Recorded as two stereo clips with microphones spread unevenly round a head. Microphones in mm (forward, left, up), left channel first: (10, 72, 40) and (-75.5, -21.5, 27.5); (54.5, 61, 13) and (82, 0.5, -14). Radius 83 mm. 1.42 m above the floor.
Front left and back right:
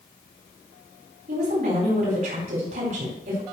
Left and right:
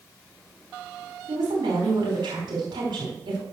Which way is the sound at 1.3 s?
95° right.